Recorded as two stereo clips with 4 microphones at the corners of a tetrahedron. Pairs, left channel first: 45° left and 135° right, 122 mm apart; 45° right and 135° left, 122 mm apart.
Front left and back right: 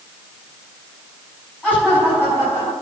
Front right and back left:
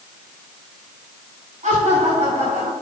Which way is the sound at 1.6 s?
125° left.